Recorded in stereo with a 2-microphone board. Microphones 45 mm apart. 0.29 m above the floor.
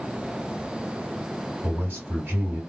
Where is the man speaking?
45° right (ahead or behind), 2 m.